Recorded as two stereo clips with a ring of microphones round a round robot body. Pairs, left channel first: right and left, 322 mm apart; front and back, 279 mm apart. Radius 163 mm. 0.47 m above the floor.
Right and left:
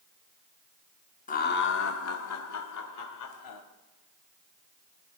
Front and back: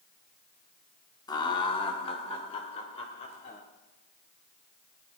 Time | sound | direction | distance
1.3 | laughter | 60° right | 0.8 m